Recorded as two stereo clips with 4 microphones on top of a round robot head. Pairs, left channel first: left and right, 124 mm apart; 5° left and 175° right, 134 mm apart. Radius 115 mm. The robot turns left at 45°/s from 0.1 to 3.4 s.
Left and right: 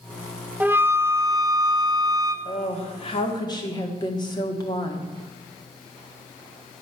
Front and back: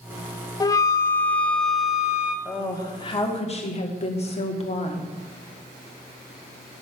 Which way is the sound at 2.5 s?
80° left.